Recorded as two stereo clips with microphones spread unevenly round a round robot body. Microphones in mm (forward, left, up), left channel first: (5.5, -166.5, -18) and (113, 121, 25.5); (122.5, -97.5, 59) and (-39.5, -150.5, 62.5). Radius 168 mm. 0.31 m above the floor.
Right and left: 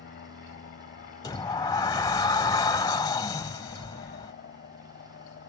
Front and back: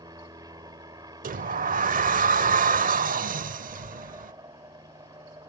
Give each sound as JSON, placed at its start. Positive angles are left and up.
{"t": 0.0, "sound": "an aircraft", "azimuth_deg": -115}
{"t": 1.2, "sound": "a sliding door", "azimuth_deg": 180}